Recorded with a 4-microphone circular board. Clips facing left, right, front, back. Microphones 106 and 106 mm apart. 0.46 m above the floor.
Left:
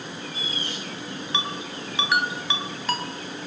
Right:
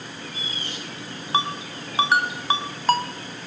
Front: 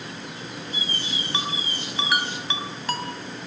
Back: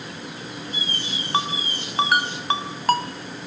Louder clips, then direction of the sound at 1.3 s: Right 7 dB, back 7 dB; 140° right.